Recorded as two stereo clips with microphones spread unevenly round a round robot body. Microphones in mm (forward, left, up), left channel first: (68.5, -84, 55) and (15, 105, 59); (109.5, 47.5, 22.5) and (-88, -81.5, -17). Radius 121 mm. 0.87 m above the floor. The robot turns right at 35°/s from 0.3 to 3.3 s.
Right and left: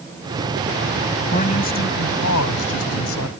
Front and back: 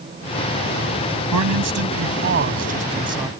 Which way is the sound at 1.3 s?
140° right.